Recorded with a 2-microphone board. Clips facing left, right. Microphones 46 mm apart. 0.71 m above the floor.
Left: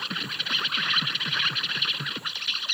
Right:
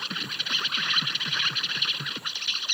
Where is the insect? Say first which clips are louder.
Left 1 dB; 10° left (ahead or behind).